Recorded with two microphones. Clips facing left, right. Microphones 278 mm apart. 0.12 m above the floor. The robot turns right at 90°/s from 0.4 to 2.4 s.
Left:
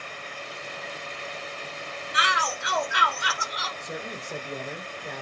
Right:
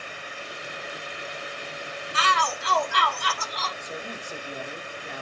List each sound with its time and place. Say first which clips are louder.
2.1 s a shout: right 3 dB; 20° left (ahead or behind), 1.1 m; by 3.7 s 10° left (ahead or behind), 1.1 m
3.8 s a man speaking: left 1 dB; 55° left (ahead or behind), 3 m